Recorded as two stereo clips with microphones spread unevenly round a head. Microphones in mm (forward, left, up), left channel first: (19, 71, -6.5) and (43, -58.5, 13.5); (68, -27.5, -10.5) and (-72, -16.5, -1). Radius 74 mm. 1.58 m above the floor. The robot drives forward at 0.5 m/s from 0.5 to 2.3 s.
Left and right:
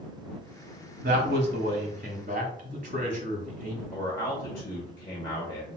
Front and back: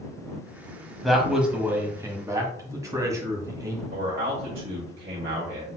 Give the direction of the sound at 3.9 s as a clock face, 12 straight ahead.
6 o'clock.